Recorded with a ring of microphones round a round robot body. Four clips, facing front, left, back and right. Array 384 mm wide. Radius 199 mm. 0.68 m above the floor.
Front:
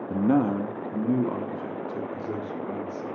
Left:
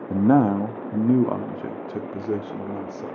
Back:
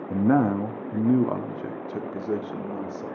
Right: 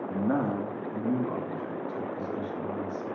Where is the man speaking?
95° left, 0.9 m; by 3.1 s 120° left, 2.5 m.